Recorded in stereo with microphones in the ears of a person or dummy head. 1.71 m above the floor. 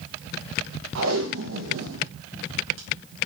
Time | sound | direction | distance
0.9 | tape being pulled | 75° right (ahead or behind) | 1.9 m